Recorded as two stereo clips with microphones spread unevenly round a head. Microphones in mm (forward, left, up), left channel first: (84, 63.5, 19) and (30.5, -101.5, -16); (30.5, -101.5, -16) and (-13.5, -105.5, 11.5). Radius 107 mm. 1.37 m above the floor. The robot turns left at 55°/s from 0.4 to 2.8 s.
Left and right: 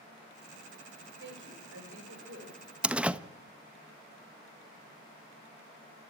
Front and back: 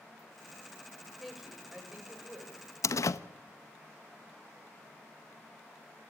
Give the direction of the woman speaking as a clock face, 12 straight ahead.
3 o'clock.